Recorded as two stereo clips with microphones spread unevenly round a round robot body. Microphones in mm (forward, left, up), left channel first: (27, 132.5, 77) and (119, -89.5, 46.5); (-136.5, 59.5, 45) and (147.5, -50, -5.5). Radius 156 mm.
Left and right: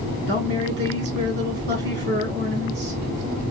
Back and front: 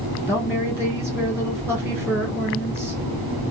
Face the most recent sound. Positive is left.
turn(degrees=-95)